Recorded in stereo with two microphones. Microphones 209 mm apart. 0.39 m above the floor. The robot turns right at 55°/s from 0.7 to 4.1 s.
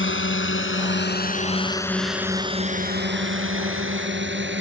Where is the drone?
70° left (ahead or behind); by 4.6 s 60° right (ahead or behind).